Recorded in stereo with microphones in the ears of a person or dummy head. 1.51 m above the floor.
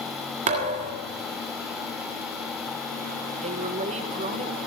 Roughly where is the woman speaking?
Right.